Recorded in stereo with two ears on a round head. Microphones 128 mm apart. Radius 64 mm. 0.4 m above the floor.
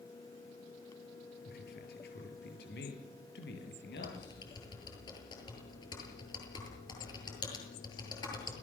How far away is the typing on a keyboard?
About 8 m.